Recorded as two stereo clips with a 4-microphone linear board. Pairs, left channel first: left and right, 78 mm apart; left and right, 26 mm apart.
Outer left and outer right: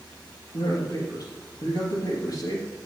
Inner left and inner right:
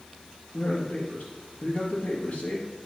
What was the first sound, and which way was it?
A man speaking, 55° left (ahead or behind).